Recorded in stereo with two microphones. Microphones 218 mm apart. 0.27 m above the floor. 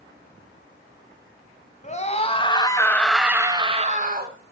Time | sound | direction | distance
1.8 | a scream | 35° left (ahead or behind) | 1.9 m